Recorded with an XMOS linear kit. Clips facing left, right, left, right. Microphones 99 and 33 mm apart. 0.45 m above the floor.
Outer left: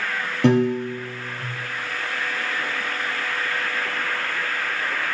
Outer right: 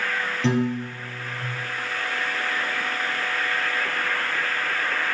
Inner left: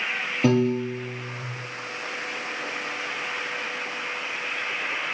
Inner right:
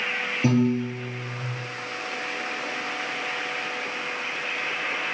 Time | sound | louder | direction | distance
0.4 | a piano | outer left 6 dB, inner left 1 dB | 55° left (ahead or behind) | 2 m